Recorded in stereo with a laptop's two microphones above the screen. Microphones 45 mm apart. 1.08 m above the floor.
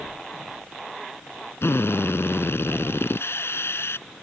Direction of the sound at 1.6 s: 65° left (ahead or behind).